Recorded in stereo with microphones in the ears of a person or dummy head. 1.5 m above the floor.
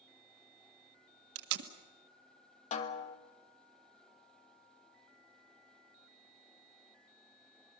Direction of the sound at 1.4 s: 65° right (ahead or behind).